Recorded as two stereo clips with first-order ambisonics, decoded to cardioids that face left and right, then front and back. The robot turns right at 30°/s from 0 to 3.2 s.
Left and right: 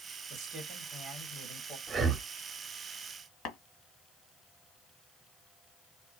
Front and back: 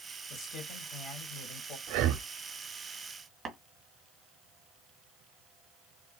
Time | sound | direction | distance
0.3 | a man speaking | 50° right | 3 m
1.9 | breathing | 160° right | 0.8 m
3.5 | tapping | 120° left | 1.7 m